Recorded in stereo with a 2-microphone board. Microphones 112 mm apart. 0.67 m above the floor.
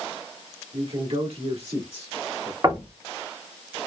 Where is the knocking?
35° right (ahead or behind), 1.6 m.